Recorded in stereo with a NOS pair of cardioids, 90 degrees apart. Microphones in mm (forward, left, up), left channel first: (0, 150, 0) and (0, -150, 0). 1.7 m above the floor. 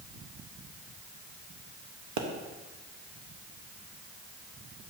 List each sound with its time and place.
2.2 s a pop: 65° right, 1.2 m